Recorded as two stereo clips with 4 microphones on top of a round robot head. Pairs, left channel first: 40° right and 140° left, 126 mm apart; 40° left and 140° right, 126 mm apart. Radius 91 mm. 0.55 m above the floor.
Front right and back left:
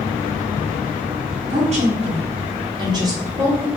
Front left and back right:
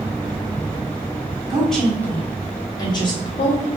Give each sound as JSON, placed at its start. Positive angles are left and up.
{"t": 1.5, "sound": "a woman speaking", "azimuth_deg": 130, "distance_m": 1.3}